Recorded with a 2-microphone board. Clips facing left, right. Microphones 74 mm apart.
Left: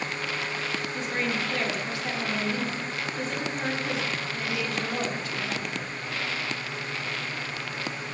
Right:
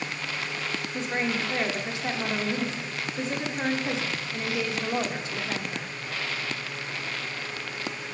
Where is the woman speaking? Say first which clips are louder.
Right 2 dB; 20° right (ahead or behind), 0.8 m.